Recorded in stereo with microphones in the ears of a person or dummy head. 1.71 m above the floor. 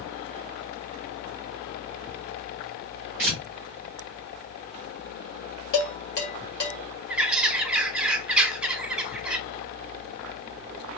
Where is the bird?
5° right (ahead or behind), 0.7 m.